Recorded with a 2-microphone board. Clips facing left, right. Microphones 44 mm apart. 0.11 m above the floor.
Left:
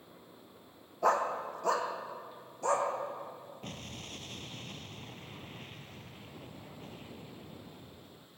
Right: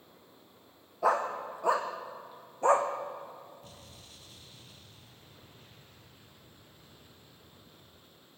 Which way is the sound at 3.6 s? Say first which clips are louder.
Left 8 dB; 60° left (ahead or behind).